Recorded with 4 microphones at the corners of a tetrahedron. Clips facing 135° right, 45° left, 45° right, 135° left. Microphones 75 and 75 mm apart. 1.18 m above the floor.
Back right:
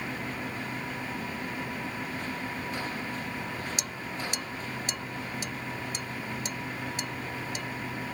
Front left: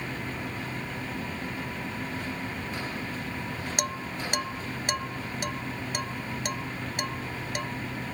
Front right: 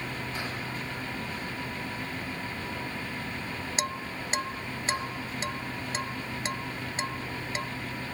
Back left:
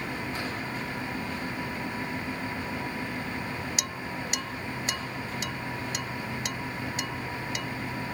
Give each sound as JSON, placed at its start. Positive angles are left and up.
{"t": 3.8, "sound": "dishes clattering", "azimuth_deg": 10}